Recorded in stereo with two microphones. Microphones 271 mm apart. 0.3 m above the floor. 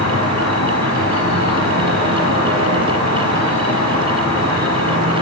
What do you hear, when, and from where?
0.0 s an insect: 75° right (ahead or behind), 1.2 m